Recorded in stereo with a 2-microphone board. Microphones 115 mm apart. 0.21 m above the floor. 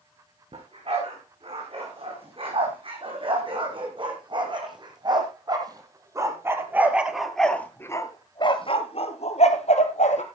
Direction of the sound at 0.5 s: 55° right (ahead or behind).